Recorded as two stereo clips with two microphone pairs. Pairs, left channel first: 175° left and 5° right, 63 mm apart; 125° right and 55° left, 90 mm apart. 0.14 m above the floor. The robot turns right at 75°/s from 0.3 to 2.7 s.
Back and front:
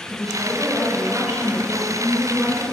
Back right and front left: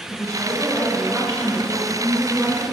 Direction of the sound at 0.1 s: 100° right.